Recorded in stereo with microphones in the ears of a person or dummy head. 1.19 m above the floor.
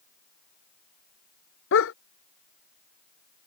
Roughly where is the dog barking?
Left.